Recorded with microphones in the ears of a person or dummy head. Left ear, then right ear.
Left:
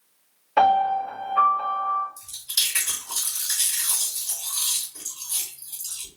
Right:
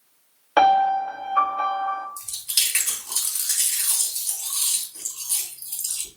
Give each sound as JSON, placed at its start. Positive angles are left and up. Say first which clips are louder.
{"t": 0.6, "sound": "a piano", "louder": "right 2 dB", "side_deg": -90, "distance_m": 1.1}
{"t": 2.2, "sound": "chewing", "louder": "right 1 dB", "side_deg": -50, "distance_m": 1.6}